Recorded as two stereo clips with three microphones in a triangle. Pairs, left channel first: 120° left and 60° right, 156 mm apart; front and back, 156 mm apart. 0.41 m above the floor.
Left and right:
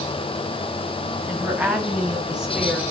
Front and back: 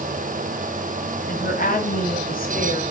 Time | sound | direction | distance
1.3 | a woman speaking | 10° left | 3.5 m